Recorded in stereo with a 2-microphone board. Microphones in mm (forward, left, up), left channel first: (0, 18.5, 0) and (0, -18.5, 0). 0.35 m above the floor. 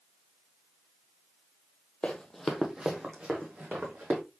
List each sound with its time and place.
2.0 s running footsteps: 30° left (ahead or behind), 0.7 m; by 4.2 s 50° right (ahead or behind), 1.9 m